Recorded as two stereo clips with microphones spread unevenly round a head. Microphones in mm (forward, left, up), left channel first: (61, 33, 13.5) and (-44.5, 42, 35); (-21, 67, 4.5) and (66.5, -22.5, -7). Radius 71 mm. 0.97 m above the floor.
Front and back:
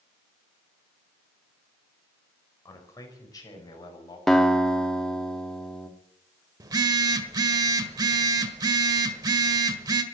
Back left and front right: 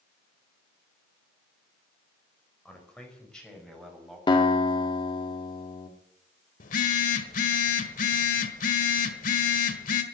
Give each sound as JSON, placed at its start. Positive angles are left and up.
{"t": 2.6, "sound": "a man speaking", "azimuth_deg": 55, "distance_m": 5.5}
{"t": 4.3, "sound": "a guitar", "azimuth_deg": 80, "distance_m": 1.9}
{"t": 6.6, "sound": "a phone buzzing", "azimuth_deg": 125, "distance_m": 1.5}